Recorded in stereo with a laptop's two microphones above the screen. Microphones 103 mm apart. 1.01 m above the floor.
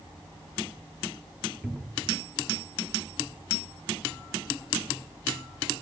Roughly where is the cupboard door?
Centre.